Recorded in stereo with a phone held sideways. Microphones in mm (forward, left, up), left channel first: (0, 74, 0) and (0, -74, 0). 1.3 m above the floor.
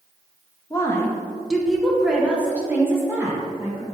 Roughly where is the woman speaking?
Left.